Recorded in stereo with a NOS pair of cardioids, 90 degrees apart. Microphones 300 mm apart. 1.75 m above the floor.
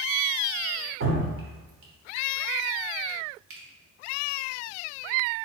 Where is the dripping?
45° right, 1.1 m.